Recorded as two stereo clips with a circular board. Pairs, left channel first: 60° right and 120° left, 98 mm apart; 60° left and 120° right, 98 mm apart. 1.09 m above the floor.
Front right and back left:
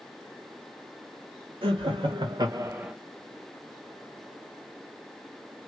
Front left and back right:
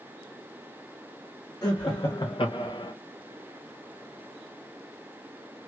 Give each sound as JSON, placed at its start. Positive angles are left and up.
{"t": 1.6, "sound": "laughter", "azimuth_deg": 105, "distance_m": 1.0}